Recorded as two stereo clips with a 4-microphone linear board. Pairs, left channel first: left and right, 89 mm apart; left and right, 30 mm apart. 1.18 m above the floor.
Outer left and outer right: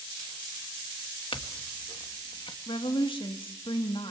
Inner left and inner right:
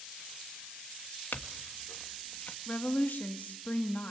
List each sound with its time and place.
1.3 s a clink: 80° left, 1.3 m
2.7 s a woman speaking: 70° left (ahead or behind), 1.6 m